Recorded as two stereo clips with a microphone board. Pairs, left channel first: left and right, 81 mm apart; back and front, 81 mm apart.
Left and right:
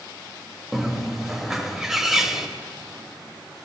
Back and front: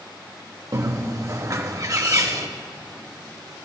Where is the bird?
Straight ahead, 0.7 m.